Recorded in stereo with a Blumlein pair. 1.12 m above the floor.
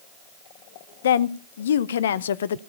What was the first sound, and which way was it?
A woman speaking, 60° left.